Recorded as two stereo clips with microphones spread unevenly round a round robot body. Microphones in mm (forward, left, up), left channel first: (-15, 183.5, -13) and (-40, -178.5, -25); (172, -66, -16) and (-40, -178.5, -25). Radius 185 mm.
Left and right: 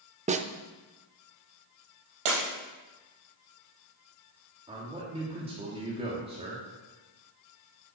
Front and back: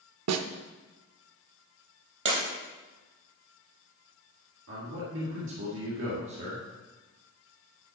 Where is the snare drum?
165° right, 0.5 m.